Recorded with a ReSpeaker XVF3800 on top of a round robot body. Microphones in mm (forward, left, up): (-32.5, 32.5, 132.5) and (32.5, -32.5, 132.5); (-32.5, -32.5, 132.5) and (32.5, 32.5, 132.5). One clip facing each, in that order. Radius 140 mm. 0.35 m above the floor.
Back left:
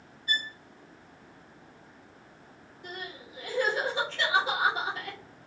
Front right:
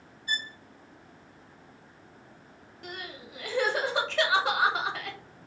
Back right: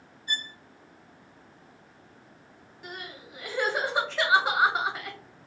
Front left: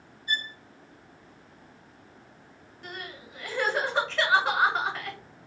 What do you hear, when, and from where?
0.3 s a violin: 90° right, 1.2 m
2.8 s crying: 50° right, 0.9 m